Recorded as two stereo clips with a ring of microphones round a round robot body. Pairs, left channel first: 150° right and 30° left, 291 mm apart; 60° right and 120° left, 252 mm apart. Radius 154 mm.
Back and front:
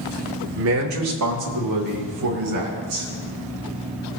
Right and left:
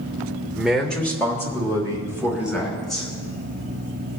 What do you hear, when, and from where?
0.6 s a man speaking: 35° left, 1.0 m; by 3.1 s 15° left, 4.5 m